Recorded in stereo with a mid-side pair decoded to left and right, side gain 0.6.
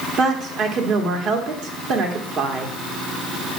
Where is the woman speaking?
55° right, 1.9 m.